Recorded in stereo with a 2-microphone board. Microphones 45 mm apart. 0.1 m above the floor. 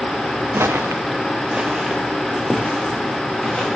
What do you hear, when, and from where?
0.5 s footsteps: 65° right (ahead or behind), 0.7 m; by 3.7 s 5° left (ahead or behind), 3.5 m